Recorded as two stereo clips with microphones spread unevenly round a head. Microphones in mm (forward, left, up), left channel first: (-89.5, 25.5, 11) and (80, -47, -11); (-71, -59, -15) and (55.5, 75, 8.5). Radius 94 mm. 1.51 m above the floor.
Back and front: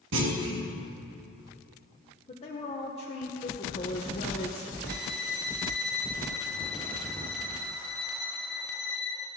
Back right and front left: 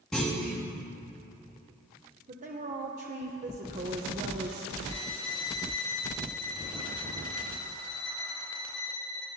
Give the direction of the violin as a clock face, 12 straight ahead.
4 o'clock.